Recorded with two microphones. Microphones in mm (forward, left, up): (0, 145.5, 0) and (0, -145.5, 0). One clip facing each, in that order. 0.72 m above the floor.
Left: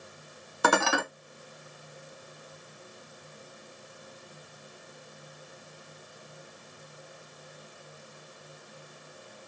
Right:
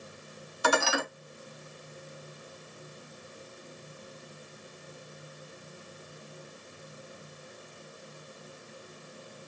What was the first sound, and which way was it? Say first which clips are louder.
Dishes clattering: left 2 dB; 65° left (ahead or behind).